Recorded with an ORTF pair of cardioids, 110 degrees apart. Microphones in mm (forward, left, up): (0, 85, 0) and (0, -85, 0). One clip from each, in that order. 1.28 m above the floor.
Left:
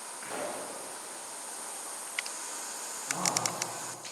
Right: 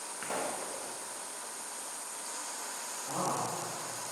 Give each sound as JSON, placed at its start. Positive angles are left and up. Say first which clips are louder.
{"t": 0.2, "sound": "a pop", "louder": "right 1 dB", "azimuth_deg": -40, "distance_m": 1.4}
{"t": 3.0, "sound": "a man speaking", "louder": "left 2 dB", "azimuth_deg": -30, "distance_m": 1.9}